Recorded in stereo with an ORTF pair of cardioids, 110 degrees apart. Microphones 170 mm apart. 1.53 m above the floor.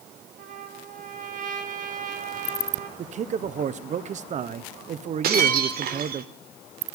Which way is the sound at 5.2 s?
65° right.